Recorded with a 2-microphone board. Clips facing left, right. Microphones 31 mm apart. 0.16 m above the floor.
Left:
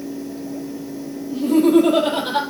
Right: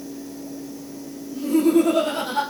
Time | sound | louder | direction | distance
1.3 | laughter | left 3 dB | 70° left (ahead or behind) | 5 m